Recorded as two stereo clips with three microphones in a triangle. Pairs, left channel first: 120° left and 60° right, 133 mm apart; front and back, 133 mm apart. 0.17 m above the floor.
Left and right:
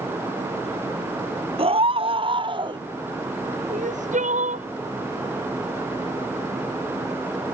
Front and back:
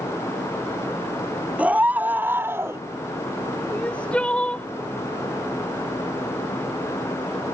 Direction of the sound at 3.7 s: 80° right.